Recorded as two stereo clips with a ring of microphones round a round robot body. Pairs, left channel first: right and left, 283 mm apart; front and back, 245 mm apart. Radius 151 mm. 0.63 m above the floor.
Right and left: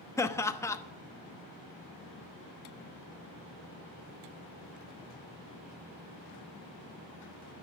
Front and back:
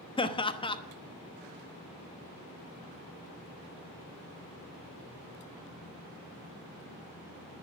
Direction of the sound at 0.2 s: 25° right.